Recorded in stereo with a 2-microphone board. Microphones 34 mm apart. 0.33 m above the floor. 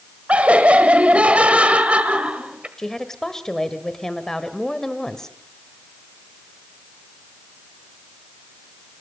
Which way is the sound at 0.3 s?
40° right (ahead or behind).